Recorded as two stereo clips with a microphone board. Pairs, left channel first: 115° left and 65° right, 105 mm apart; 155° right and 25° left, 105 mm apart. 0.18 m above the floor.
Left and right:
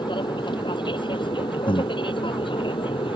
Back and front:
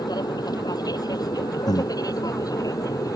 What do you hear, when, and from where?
0.0 s an aircraft: 155° left; by 3.2 s 150° left
1.7 s breathing: 150° left